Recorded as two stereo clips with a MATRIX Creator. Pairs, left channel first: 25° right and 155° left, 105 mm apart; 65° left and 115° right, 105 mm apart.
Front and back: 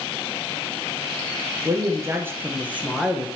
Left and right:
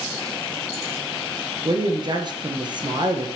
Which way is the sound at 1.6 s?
150° right.